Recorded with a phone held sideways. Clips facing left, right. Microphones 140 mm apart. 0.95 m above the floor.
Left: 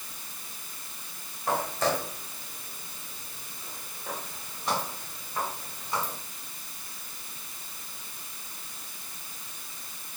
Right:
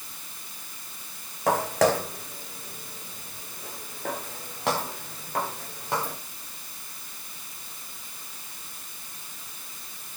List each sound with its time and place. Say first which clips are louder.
1.5 s footsteps: right 6 dB; 75° right (ahead or behind), 4 m; by 6.2 s 60° right (ahead or behind), 6 m